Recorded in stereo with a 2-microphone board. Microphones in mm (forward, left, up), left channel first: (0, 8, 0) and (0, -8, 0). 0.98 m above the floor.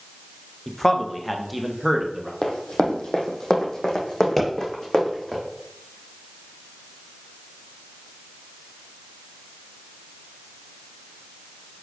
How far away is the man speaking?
About 0.8 m.